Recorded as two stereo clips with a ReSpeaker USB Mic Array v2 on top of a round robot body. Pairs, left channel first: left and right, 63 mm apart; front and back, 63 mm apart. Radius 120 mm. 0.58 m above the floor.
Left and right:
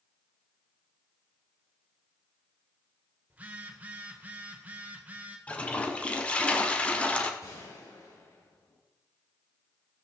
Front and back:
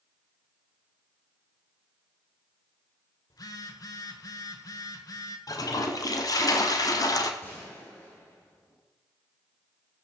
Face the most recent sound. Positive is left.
turn(degrees=50)